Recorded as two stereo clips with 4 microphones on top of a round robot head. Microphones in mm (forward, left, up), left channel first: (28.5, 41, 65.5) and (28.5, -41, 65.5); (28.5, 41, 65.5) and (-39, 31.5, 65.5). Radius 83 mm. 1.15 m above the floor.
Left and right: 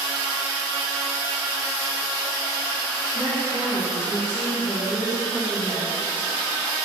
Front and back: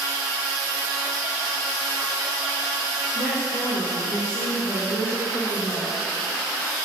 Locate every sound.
3.1 s a woman speaking: 20° left, 2.5 m